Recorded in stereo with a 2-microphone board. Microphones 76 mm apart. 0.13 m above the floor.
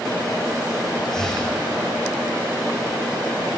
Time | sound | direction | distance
1.1 | breathing | 5° left (ahead or behind) | 1.5 m